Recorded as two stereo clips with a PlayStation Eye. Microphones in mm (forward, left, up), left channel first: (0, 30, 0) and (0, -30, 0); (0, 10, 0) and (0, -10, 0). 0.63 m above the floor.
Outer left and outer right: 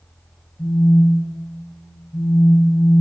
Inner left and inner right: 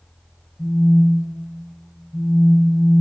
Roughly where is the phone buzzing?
Centre.